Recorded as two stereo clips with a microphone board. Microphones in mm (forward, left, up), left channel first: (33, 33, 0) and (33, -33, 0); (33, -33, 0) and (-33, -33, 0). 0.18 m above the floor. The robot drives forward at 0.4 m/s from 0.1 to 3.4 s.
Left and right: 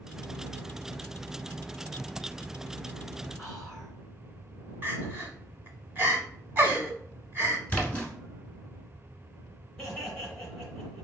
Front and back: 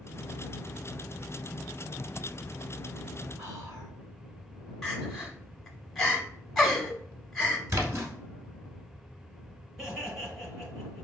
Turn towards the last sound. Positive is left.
turn(degrees=120)